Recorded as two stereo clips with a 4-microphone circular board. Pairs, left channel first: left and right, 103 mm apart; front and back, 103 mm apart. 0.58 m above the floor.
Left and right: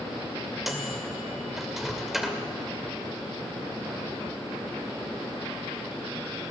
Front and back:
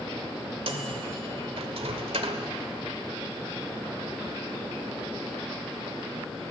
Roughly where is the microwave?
Behind.